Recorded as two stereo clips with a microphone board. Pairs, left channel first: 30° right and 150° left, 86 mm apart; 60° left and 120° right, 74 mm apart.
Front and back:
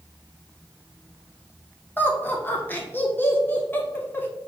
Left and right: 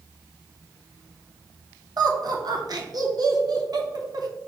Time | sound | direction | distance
2.0 | laughter | 95° right | 0.8 m